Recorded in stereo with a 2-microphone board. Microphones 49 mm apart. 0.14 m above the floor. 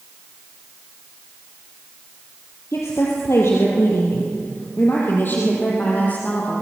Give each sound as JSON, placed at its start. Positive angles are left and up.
{"t": 2.7, "sound": "a woman speaking", "side_deg": 70, "distance_m": 3.5}